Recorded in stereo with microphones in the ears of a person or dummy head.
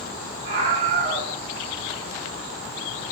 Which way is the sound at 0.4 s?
50° right (ahead or behind).